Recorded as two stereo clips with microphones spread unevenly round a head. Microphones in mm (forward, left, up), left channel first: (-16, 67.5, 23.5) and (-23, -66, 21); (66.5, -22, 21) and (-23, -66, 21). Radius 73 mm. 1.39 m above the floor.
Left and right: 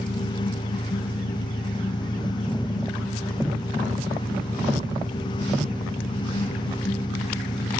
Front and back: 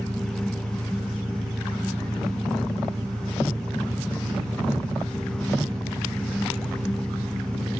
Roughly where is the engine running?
Behind left.